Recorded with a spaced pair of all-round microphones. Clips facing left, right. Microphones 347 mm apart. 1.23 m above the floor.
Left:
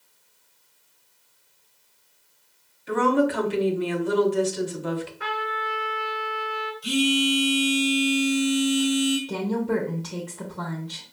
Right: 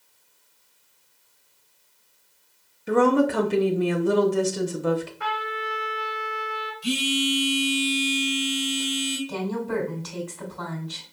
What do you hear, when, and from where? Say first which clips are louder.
2.9 s a woman speaking: right 2 dB; 55° right (ahead or behind), 0.7 m
5.2 s a trumpet: left 1 dB; 5° right (ahead or behind), 1.3 m
6.8 s a phone buzzing: left 3 dB; 35° right (ahead or behind), 1.1 m
9.3 s a woman speaking: left 3 dB; 80° left, 0.9 m